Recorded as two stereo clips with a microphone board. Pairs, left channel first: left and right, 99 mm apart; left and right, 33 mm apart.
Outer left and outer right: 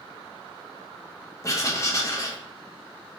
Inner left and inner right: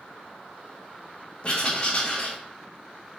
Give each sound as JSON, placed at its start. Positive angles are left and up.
{"t": 1.4, "sound": "writing", "side_deg": 30, "distance_m": 0.7}